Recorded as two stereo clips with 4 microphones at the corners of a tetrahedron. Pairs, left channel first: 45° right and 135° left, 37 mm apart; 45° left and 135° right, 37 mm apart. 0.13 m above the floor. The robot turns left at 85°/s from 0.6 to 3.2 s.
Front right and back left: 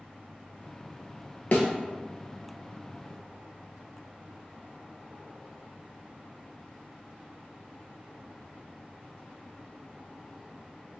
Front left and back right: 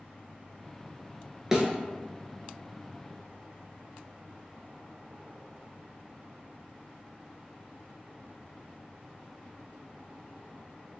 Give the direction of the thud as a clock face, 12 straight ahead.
2 o'clock.